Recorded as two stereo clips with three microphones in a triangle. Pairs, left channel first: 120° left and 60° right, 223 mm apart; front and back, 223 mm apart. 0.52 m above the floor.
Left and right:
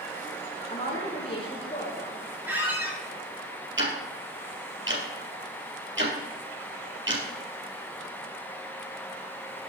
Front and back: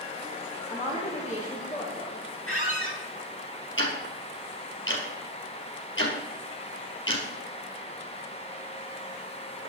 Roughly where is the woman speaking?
Ahead left.